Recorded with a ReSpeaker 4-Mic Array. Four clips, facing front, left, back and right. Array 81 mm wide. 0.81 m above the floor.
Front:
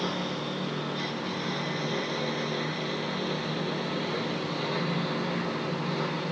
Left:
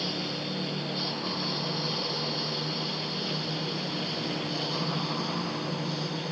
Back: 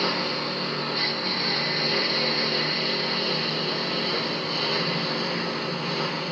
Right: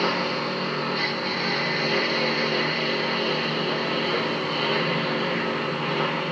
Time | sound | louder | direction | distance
0.0 | a lawn mower | right 9 dB, back 4 dB | 110° right | ?